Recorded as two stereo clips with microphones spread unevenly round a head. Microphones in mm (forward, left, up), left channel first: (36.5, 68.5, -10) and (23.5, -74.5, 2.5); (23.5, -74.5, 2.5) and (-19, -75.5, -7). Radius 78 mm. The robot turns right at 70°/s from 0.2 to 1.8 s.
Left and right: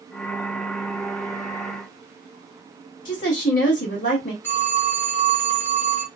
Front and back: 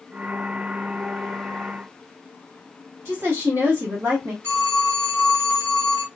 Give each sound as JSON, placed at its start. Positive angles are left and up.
{"t": 3.0, "sound": "a woman speaking", "azimuth_deg": 115, "distance_m": 1.7}
{"t": 4.4, "sound": "a phone ringing", "azimuth_deg": 165, "distance_m": 1.1}